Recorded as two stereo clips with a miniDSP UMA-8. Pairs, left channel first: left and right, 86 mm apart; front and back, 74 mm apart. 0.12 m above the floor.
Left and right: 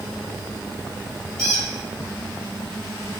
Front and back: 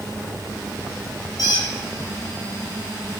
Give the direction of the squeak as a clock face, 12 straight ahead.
12 o'clock.